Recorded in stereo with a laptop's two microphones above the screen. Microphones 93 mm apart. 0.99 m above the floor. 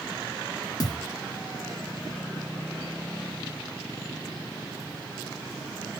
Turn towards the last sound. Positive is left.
turn(degrees=45)  # may be behind; listen again after turning